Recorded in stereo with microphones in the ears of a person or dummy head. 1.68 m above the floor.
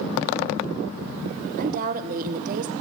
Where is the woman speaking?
45° right (ahead or behind), 1.1 m.